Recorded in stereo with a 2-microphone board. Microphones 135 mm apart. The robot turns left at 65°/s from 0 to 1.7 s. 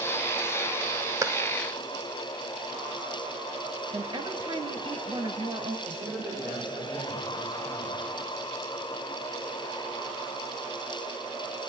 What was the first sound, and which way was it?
A clap, 20° right (ahead or behind).